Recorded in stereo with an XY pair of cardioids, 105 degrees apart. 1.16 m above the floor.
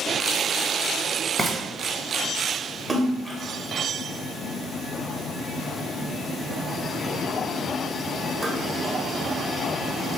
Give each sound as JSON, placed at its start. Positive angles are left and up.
{"t": 1.4, "sound": "frying", "azimuth_deg": -25, "distance_m": 0.7}
{"t": 2.9, "sound": "a splash", "azimuth_deg": -20, "distance_m": 0.6}